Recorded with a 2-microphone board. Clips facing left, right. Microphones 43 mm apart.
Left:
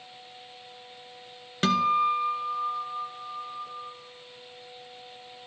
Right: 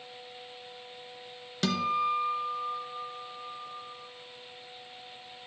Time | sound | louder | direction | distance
1.6 | a guitar | left 5 dB | 40° left (ahead or behind) | 0.9 m